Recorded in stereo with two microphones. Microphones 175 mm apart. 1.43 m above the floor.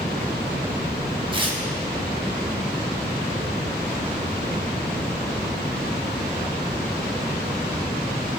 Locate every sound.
1.3 s tearing paper: 30° right (ahead or behind), 1.0 m